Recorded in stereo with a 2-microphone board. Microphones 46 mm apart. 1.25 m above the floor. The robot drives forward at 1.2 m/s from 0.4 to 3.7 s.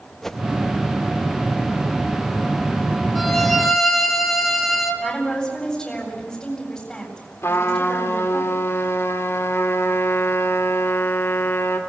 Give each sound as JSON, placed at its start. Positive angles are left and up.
{"t": 0.2, "sound": "a whoosh", "side_deg": 5, "distance_m": 0.5}
{"t": 3.1, "sound": "a violin", "side_deg": 0, "distance_m": 2.0}
{"t": 5.0, "sound": "a woman speaking", "side_deg": 15, "distance_m": 7.5}
{"t": 7.4, "sound": "a trumpet", "side_deg": 70, "distance_m": 2.5}